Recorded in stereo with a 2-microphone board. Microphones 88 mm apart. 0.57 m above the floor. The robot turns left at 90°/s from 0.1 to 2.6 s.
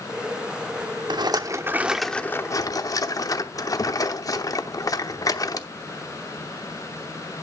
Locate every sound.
1.1 s a rattle: 95° right, 0.8 m; by 5.7 s 130° left, 0.8 m